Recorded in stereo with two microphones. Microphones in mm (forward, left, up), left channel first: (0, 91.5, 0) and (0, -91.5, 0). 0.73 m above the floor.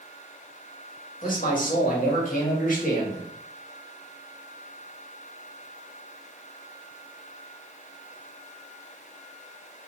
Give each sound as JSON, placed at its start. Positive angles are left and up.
{"t": 1.2, "sound": "a man speaking", "side_deg": 45, "distance_m": 1.5}